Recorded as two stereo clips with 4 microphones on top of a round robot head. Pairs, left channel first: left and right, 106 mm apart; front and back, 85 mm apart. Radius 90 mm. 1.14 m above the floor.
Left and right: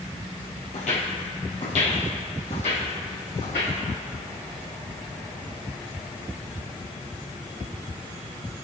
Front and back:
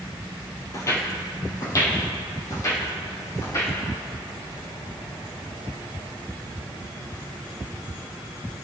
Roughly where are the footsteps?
Ahead left.